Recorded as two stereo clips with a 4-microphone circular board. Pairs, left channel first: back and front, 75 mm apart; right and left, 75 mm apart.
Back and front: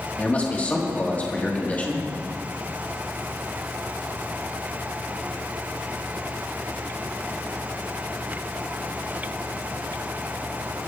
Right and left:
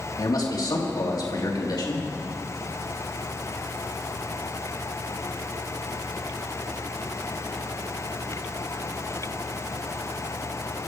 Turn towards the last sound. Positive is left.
turn(degrees=-115)